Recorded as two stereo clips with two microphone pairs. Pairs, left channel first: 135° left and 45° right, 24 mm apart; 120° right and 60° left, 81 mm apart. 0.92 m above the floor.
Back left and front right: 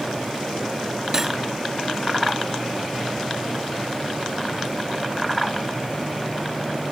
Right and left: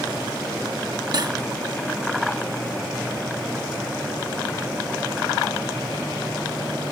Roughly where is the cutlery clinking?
Ahead left.